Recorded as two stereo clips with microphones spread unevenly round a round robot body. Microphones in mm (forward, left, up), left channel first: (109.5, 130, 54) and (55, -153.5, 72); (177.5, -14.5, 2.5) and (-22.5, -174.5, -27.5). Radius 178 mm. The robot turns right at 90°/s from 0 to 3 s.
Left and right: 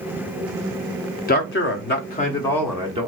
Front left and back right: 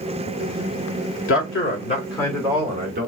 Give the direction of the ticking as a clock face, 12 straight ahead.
No ticking in this recording.